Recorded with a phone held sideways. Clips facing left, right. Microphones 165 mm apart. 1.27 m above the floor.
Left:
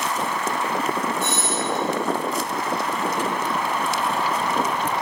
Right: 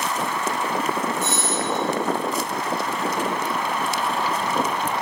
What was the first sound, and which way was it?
A doorbell, 65° left (ahead or behind).